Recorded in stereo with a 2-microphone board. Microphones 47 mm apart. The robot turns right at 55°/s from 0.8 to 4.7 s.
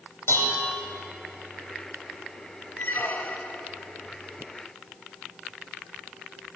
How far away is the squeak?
About 0.6 m.